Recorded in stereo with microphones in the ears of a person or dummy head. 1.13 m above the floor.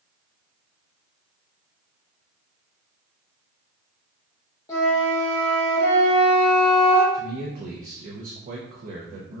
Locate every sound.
4.7 s a flute: 20° left (ahead or behind), 1.3 m
7.1 s a man speaking: 40° right (ahead or behind), 0.7 m